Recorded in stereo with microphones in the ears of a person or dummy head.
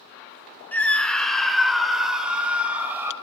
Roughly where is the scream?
Centre.